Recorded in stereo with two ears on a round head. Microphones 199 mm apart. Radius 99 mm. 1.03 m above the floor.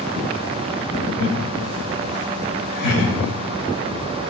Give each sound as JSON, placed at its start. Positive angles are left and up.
{"t": 1.2, "sound": "laughter", "side_deg": 65, "distance_m": 5.0}